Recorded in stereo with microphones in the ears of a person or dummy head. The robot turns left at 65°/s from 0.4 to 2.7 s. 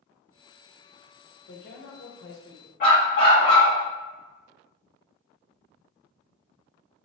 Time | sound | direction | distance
1.5 | a man speaking | 125° left | 1.3 m
2.8 | a dog barking | 50° left (ahead or behind) | 1.7 m